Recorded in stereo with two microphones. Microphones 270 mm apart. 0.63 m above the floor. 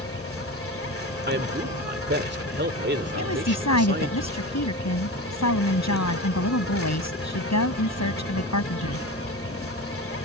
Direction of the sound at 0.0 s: 50° left (ahead or behind).